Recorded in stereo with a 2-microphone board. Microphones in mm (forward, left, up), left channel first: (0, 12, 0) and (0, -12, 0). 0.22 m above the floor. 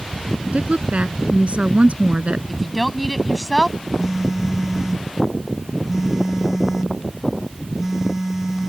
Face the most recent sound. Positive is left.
turn(degrees=-10)  # may be behind; listen again after turning